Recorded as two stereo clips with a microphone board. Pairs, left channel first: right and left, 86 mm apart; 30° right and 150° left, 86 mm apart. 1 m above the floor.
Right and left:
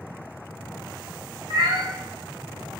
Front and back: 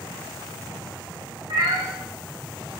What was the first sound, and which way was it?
A cat meowing, 120° left.